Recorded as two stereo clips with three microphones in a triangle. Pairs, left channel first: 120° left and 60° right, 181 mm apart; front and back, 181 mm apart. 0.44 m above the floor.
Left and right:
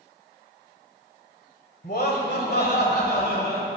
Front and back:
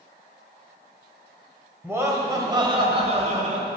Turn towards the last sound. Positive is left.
turn(degrees=145)